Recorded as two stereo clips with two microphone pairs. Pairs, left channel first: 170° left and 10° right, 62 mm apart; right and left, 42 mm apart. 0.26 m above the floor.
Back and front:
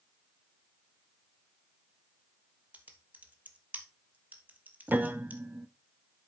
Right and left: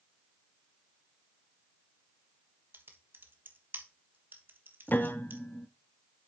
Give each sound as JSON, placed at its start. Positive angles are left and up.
{"t": 2.7, "sound": "typing on a keyboard", "azimuth_deg": 55, "distance_m": 1.2}
{"t": 4.9, "sound": "a piano", "azimuth_deg": -65, "distance_m": 0.7}